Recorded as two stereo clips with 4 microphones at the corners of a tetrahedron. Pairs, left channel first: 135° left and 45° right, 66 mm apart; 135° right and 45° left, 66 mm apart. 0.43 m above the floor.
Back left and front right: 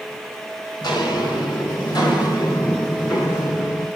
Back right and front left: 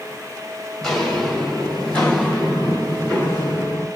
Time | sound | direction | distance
0.8 | footsteps | 145° left | 5 m